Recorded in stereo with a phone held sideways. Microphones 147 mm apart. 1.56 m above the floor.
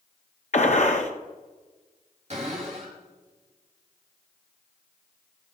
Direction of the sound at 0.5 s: 55° left (ahead or behind).